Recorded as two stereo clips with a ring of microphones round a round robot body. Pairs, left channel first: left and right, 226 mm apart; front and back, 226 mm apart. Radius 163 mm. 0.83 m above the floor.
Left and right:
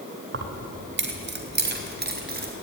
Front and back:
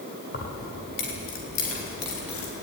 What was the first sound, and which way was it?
Keys jangling, 60° right.